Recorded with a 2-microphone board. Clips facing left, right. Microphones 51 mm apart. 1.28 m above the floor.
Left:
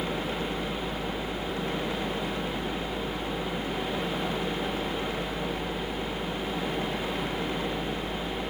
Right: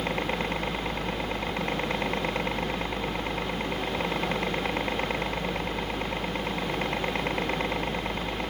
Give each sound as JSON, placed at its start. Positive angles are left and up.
{"t": 0.0, "sound": "a helicopter", "side_deg": -55}